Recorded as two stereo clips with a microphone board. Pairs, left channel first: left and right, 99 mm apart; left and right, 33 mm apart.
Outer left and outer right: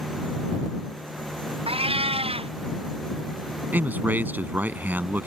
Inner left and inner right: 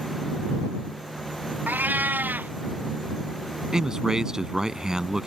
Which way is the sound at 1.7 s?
75° right (ahead or behind).